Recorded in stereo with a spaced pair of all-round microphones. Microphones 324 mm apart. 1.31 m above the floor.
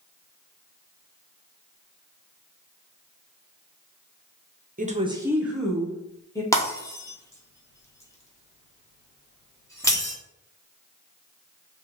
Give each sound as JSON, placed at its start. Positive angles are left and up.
{"t": 4.8, "sound": "a woman speaking", "side_deg": -25, "distance_m": 0.6}
{"t": 6.5, "sound": "breaking glass", "side_deg": 10, "distance_m": 0.9}